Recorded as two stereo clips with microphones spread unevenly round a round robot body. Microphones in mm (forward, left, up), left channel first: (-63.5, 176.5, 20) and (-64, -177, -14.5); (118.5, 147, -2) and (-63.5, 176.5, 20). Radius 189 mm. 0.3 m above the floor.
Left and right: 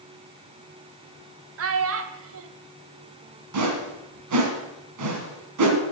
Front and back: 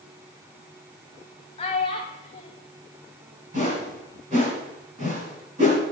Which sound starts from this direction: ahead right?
A child speaking, at 1.6 s.